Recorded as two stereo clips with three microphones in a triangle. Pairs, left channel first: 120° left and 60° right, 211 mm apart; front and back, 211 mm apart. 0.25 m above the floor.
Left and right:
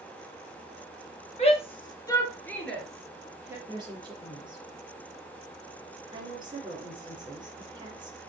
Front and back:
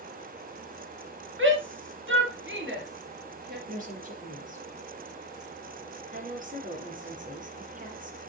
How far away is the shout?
About 3 m.